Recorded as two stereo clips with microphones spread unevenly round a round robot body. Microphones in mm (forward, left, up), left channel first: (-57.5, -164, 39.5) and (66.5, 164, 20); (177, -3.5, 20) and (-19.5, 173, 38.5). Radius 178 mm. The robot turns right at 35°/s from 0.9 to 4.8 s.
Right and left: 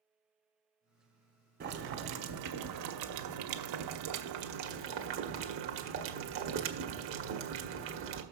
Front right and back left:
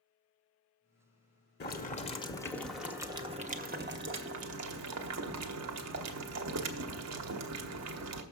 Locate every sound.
1.6 s boiling: 5° left, 1.3 m; by 8.2 s 120° left, 1.3 m